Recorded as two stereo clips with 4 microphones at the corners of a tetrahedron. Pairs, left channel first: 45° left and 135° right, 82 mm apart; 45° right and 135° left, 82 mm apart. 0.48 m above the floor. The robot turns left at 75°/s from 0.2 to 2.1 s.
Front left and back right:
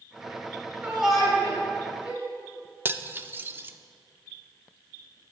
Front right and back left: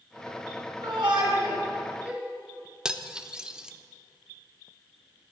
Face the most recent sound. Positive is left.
turn(degrees=-160)